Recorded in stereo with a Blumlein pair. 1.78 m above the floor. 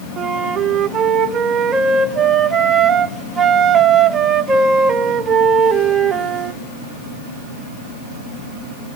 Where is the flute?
20° right, 0.9 m.